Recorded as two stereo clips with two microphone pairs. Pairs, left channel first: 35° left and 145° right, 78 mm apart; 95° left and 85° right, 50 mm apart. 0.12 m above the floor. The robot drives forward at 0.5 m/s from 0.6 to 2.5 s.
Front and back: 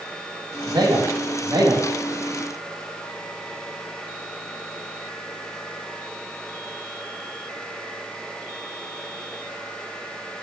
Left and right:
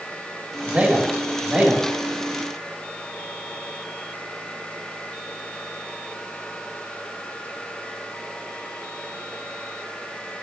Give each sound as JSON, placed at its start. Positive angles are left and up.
{"t": 0.7, "sound": "a man speaking", "azimuth_deg": -140, "distance_m": 5.0}